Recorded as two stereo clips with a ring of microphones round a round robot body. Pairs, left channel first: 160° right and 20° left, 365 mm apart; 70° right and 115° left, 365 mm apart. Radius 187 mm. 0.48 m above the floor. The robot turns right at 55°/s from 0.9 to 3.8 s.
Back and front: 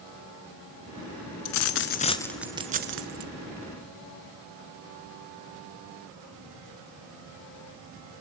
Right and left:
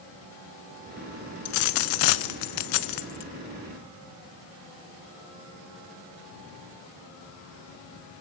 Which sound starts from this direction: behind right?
A dropped coin, at 1.4 s.